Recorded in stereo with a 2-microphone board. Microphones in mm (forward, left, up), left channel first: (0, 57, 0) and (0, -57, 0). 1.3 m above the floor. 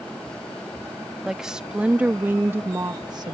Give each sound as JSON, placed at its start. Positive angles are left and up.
{"t": 1.2, "sound": "a woman speaking", "side_deg": -5}